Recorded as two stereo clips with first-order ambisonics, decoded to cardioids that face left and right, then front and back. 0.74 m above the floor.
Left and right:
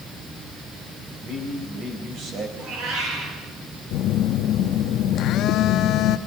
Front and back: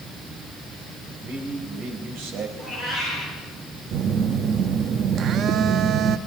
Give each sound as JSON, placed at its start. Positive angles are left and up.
{"t": 1.2, "sound": "a man speaking", "azimuth_deg": -140, "distance_m": 5.0}
{"t": 2.6, "sound": "a cat meowing", "azimuth_deg": -100, "distance_m": 9.0}
{"t": 3.9, "sound": "a phone buzzing", "azimuth_deg": 130, "distance_m": 0.7}